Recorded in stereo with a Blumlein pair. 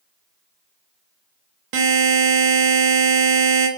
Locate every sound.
1.7 s a buzzer: 45° right, 0.7 m